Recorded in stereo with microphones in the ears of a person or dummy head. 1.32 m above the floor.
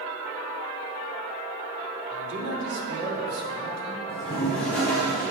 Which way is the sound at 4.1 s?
5° left (ahead or behind).